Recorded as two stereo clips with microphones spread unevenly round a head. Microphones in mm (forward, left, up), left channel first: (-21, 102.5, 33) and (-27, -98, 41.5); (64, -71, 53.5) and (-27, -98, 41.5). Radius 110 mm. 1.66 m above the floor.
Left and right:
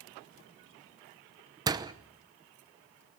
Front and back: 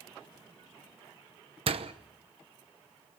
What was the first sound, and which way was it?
A door slam, 160° right.